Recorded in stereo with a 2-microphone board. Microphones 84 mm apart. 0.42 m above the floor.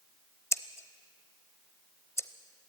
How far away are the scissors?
About 0.7 m.